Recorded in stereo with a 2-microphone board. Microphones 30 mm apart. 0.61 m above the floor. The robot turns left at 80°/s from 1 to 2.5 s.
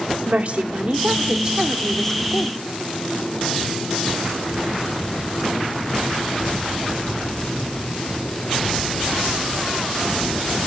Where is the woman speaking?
110° right, 1.7 m; by 2.6 s 130° left, 1.7 m.